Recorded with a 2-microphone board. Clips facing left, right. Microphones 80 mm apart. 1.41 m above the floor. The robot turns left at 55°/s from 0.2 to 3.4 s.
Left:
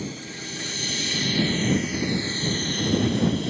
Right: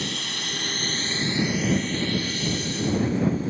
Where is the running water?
95° right; by 3.5 s 90° left.